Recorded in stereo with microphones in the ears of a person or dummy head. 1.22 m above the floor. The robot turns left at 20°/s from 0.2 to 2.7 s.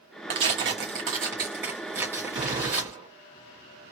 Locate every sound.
0.3 s tearing paper: 115° right, 0.8 m; by 3.0 s 160° right, 0.8 m
2.3 s a gunshot: 25° right (ahead or behind), 2 m; by 3.1 s 20° right (ahead or behind), 2 m